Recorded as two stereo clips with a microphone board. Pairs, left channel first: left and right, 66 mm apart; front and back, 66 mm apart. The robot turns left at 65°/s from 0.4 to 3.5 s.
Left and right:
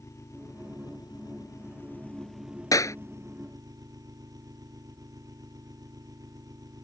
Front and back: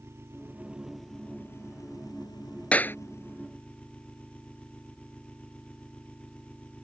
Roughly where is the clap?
Left.